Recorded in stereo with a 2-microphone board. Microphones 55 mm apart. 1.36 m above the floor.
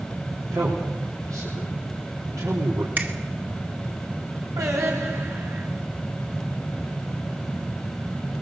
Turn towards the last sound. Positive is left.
turn(degrees=-70)  # may be behind; listen again after turning